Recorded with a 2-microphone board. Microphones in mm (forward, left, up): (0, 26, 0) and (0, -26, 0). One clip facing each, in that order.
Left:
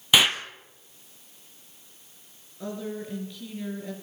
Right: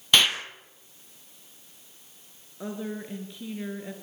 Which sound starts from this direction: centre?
An explosion, at 0.1 s.